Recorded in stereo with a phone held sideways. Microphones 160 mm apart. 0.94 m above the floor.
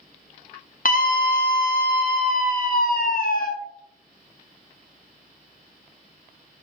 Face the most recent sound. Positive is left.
turn(degrees=60)  # may be behind; listen again after turning